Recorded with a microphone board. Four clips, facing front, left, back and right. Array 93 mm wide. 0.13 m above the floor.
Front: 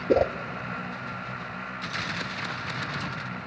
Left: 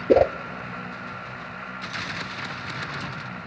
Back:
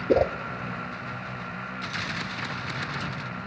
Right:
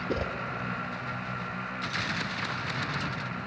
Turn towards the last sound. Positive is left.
turn(degrees=90)